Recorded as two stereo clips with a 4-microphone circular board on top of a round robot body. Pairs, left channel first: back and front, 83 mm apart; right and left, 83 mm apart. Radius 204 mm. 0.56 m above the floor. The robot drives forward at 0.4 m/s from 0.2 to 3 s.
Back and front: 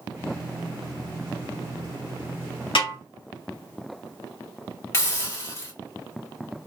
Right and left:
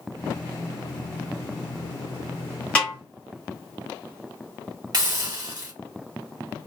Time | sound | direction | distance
2.8 | a snare drum | 165° right | 2.5 m
4.9 | a hiss | 130° left | 2 m